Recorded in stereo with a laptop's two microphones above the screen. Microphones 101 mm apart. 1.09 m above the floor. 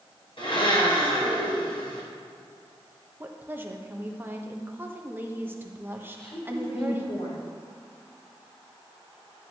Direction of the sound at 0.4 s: 60° left (ahead or behind).